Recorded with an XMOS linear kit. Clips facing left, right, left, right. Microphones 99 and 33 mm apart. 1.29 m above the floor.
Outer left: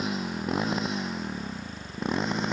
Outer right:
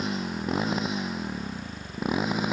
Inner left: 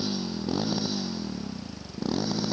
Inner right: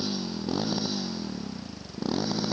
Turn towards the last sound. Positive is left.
turn(degrees=-5)  # may be behind; listen again after turning